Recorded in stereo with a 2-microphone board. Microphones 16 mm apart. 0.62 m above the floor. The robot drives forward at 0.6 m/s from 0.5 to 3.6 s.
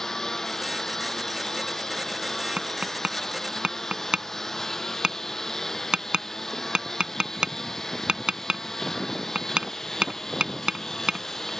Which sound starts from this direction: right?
Tapping, at 2.6 s.